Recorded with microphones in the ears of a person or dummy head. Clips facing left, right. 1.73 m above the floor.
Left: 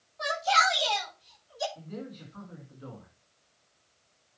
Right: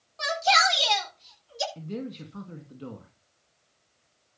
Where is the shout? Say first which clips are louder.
Right 3 dB; 80° right, 9 m; by 1.6 s 75° right (ahead or behind), 8.5 m.